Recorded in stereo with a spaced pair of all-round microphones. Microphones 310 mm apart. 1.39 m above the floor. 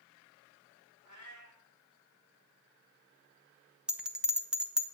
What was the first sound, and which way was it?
A cat meowing, 65° right (ahead or behind).